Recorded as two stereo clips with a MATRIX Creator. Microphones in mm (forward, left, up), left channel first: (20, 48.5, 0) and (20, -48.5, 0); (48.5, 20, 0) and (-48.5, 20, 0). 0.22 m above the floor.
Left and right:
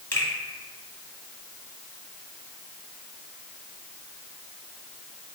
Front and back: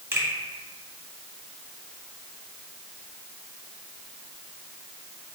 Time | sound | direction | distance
0.1 | a finger snap | 140° left | 1.3 m